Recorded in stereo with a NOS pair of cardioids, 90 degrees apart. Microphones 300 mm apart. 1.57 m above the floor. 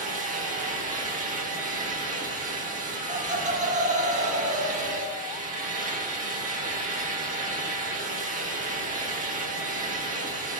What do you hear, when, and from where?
0.0 s a fan: 25° right, 0.8 m
3.1 s laughter: 25° right, 0.8 m